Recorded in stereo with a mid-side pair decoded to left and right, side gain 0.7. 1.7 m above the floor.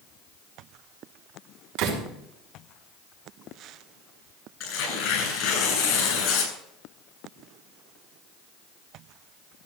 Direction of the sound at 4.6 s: 55° left.